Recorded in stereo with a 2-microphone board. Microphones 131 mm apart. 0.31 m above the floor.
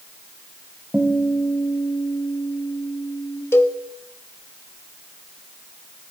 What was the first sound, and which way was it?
A guitar, 10° right (ahead or behind).